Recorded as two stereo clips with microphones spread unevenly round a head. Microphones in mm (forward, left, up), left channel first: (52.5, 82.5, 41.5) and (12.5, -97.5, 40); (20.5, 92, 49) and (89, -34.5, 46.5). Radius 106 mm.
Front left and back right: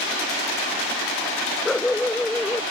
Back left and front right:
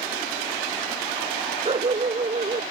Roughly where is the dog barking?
Ahead.